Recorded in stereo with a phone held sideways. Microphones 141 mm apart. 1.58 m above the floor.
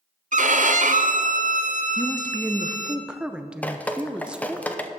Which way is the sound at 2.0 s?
5° right (ahead or behind).